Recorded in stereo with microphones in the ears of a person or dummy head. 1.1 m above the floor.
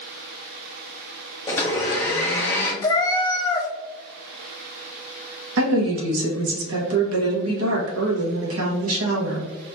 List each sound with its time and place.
1.5 s a blender: 15° left (ahead or behind), 1.0 m
2.8 s a cat meowing: 20° left (ahead or behind), 0.8 m
5.6 s a woman speaking: 75° right (ahead or behind), 1.6 m